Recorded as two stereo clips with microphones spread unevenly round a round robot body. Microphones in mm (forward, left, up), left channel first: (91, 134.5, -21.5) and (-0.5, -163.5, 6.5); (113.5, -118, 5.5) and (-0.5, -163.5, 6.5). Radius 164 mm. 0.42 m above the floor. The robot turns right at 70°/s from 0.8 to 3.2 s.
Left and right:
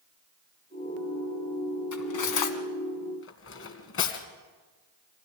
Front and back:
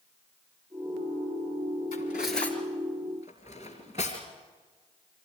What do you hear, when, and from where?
1.9 s cutlery clinking: 35° left, 2.0 m; by 4.2 s 125° left, 2.0 m